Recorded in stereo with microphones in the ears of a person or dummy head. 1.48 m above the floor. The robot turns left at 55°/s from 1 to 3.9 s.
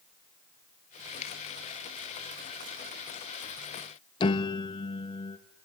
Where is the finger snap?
40° left (ahead or behind), 4.5 m; by 1.3 s 30° left (ahead or behind), 4.5 m.